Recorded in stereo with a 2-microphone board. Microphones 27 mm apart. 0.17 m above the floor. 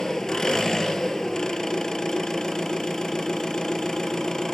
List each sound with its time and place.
0.0 s an engine running: 20° left (ahead or behind), 1.0 m